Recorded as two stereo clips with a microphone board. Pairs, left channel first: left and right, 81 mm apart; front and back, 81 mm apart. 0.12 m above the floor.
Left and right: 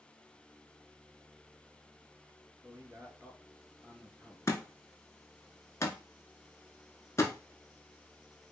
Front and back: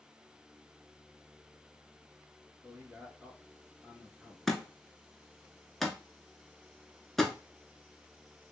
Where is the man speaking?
110° right, 1.5 m.